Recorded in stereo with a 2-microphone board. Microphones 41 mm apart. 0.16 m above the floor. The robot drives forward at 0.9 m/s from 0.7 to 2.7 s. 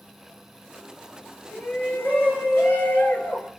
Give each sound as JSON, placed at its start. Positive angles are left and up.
{"t": 1.5, "sound": "a shout", "side_deg": 50, "distance_m": 2.5}